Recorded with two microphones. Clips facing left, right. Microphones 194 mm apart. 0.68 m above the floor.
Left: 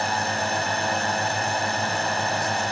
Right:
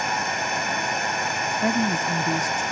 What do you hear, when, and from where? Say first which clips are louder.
0.0 s a drone: left 2 dB; 30° left (ahead or behind)
1.6 s a woman speaking: right 4 dB; 80° right